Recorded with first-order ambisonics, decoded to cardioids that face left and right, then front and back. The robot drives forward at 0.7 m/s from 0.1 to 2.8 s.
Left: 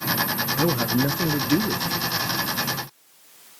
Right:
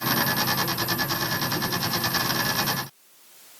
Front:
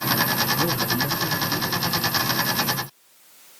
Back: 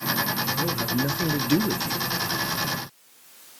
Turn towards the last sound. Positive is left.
turn(degrees=155)